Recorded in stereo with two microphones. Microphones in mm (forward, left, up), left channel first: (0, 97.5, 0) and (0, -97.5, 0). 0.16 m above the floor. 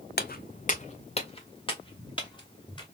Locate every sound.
0.2 s footsteps: 55° left (ahead or behind), 0.5 m; by 2.8 s 20° left (ahead or behind), 2 m